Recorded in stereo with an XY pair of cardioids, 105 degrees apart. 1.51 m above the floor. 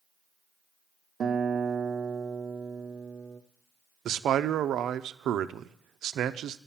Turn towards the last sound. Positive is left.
turn(degrees=-70)